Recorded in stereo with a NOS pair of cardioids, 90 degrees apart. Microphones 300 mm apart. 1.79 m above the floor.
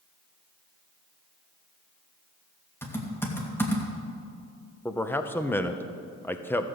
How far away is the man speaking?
About 1.0 m.